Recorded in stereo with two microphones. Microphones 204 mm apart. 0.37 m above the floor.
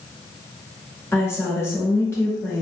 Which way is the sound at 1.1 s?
10° left (ahead or behind).